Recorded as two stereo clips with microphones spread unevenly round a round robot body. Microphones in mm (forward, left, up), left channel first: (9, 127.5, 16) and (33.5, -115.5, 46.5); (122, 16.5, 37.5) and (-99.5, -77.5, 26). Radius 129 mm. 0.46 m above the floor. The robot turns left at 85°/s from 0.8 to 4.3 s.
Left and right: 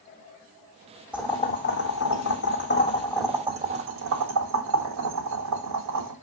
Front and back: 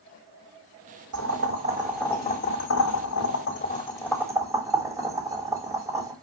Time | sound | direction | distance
1.1 | boiling | 170° right | 3 m